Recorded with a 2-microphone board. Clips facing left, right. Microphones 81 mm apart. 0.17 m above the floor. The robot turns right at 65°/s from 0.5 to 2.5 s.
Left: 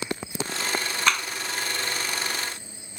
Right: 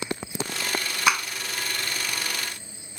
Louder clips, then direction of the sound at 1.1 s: Right 2 dB; 10° right (ahead or behind).